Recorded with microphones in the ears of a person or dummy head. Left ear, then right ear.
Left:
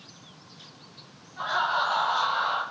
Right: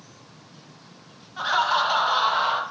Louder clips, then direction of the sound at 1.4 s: Right 4 dB; 80° right.